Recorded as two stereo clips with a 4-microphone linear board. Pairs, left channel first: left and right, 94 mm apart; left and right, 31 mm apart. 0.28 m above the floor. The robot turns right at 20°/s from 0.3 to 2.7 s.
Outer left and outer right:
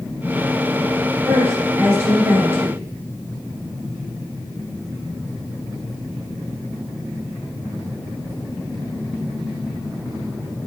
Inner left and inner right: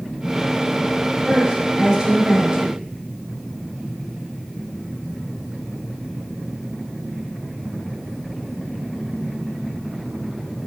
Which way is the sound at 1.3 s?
30° right (ahead or behind).